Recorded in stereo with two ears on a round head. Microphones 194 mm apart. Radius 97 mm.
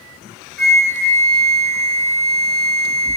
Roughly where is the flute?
Centre.